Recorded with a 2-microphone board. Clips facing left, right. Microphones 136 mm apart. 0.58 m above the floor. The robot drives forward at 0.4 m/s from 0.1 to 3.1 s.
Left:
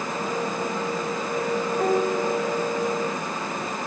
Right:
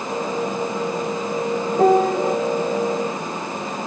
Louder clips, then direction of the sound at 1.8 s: Right 9 dB; 55° right (ahead or behind).